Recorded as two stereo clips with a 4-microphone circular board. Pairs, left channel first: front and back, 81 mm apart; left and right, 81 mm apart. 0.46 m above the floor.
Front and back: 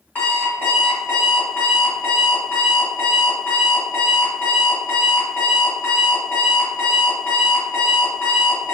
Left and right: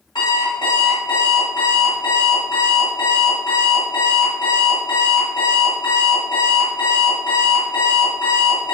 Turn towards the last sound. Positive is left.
turn(degrees=70)